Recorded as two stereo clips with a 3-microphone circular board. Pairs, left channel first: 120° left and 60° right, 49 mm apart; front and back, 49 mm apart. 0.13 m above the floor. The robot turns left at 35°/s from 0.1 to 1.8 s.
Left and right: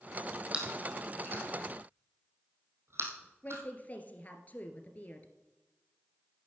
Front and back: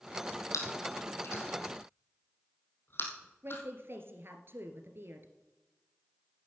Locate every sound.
0.5 s chewing: 5° left, 3.5 m; by 3.6 s 35° right, 3.5 m
3.4 s a woman speaking: 165° left, 1.9 m